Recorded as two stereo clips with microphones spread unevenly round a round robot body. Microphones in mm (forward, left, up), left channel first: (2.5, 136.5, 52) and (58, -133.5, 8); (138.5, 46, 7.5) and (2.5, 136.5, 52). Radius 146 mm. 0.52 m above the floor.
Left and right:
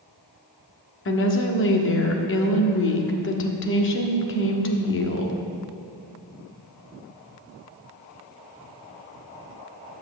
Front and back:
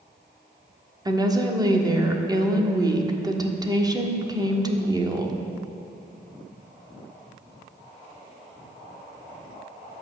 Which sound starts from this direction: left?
A woman speaking, at 1.1 s.